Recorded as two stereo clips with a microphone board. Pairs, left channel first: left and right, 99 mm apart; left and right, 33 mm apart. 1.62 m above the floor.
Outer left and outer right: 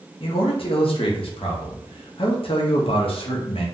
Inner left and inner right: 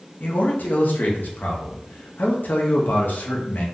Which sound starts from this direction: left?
A man speaking, at 0.2 s.